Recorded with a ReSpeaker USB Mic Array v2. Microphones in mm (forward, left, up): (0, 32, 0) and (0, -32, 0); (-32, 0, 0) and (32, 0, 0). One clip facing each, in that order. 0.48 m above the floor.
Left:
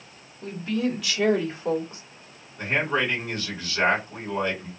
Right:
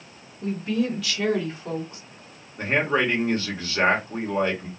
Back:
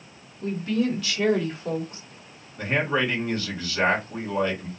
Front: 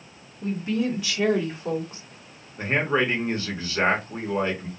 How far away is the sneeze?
No sneeze in this recording.